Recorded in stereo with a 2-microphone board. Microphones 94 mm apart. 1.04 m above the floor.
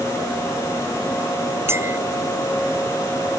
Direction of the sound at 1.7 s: 25° right (ahead or behind).